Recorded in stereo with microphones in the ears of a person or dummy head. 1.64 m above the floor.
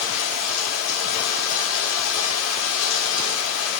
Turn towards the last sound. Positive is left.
turn(degrees=80)